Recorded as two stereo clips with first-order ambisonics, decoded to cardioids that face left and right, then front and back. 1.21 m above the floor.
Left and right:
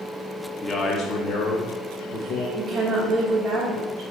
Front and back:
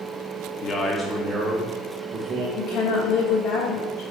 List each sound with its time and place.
0.6 s a man speaking: 20° left, 0.6 m; by 2.5 s 125° left, 1.7 m
2.6 s a woman speaking: 20° right, 1.4 m